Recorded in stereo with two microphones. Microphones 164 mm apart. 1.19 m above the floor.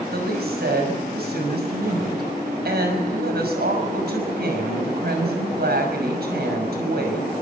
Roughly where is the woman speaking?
Right.